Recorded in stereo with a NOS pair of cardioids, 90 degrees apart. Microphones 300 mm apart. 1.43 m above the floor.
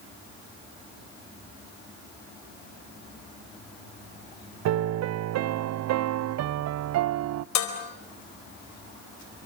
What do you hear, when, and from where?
4.7 s a piano: 60° right, 0.5 m
7.5 s dishes clattering: 65° left, 4.5 m